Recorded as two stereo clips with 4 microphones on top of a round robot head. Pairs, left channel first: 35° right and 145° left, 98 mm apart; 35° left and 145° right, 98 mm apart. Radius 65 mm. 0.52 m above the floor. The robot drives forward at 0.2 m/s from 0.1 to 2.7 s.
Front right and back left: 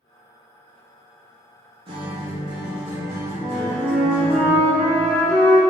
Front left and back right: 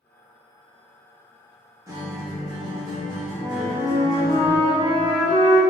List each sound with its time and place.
1.9 s a guitar: 160° left, 0.8 m; by 4.4 s 165° left, 1.0 m
3.4 s a flute: 135° left, 1.9 m